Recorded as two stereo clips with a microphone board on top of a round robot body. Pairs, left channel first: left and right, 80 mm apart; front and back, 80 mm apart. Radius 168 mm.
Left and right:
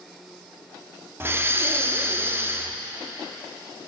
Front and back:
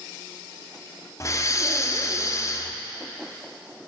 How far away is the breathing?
About 1.1 m.